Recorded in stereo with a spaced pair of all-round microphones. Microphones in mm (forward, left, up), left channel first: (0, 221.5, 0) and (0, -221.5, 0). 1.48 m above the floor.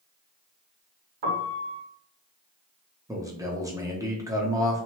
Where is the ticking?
I don't hear ticking.